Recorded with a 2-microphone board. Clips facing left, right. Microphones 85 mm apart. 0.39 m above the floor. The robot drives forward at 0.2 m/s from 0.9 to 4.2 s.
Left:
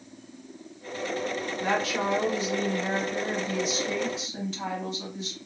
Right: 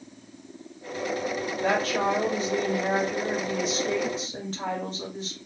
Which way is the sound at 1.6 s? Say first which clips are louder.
Right 3 dB; 45° right (ahead or behind).